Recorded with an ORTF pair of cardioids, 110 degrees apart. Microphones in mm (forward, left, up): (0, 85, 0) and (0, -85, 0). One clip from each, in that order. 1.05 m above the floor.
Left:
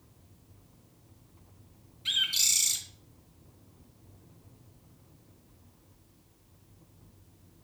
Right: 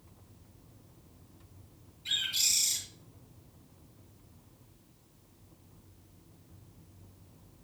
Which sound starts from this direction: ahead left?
A bird, at 2.0 s.